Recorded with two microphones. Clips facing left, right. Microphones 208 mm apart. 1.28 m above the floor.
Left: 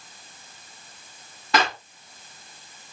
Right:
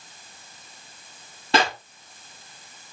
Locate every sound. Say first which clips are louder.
1.5 s a clap: right 2 dB; 30° right (ahead or behind), 2.5 m